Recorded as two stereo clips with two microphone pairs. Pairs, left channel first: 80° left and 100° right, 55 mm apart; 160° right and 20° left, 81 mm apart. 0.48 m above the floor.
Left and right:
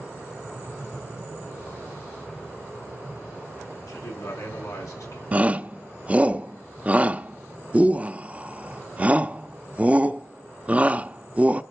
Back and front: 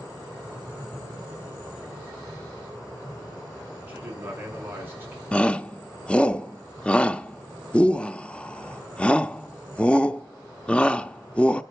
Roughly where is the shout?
Right.